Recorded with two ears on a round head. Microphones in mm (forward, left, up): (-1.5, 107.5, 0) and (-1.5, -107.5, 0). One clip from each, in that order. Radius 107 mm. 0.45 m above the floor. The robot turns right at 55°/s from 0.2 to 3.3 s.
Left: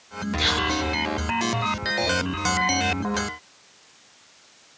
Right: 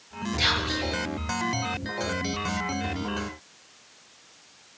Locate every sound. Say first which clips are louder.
0.4 s whispering: left 2 dB; centre (ahead or behind), 6 m; by 0.9 s 25° right (ahead or behind), 6 m